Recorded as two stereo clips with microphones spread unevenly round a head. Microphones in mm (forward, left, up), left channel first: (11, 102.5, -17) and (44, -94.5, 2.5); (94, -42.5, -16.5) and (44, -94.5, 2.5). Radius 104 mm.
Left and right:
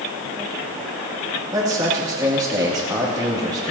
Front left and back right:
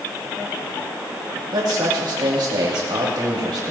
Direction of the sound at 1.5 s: 155° right.